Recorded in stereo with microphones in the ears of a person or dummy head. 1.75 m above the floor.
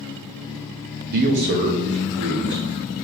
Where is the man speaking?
50° right (ahead or behind), 0.6 m; by 3.0 s 65° right (ahead or behind), 2.0 m.